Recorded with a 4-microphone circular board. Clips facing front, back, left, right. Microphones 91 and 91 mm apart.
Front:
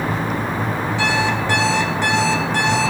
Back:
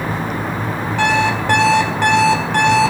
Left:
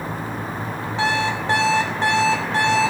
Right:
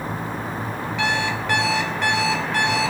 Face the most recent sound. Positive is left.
turn(degrees=145)